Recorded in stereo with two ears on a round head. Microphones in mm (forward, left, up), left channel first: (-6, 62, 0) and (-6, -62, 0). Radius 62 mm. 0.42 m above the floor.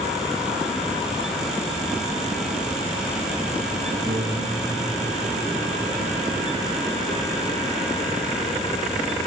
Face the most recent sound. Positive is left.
turn(degrees=-5)  # may be behind; listen again after turning